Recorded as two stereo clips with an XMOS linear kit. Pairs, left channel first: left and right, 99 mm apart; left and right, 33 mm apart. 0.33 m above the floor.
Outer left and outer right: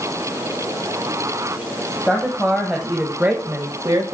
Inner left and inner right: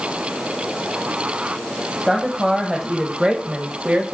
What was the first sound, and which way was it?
A woman speaking, 10° left (ahead or behind).